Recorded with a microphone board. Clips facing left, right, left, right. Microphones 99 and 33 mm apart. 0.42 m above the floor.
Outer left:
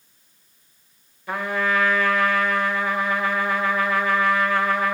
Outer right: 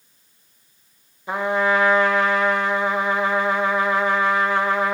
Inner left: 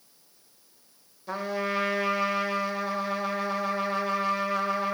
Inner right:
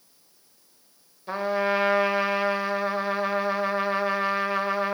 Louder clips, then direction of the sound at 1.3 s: Outer right 4 dB, inner right 5 dB; 20° right (ahead or behind).